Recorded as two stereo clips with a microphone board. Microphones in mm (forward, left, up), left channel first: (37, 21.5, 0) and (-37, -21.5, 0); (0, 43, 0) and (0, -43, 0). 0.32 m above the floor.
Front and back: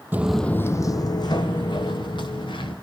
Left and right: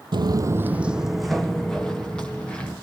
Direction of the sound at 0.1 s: 85° right.